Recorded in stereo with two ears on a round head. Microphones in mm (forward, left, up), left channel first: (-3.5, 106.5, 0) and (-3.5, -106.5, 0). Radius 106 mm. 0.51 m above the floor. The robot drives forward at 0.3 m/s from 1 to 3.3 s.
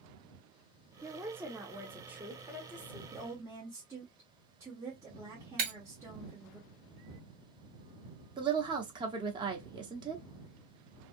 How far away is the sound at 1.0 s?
About 0.7 m.